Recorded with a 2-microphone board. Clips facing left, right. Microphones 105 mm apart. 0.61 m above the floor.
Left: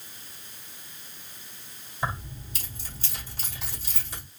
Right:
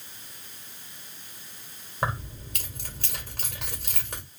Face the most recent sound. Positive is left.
turn(degrees=-65)  # may be behind; listen again after turning